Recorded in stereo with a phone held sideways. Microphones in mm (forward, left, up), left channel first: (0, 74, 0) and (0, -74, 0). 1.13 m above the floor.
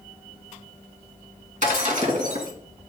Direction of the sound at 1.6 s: 60° right (ahead or behind).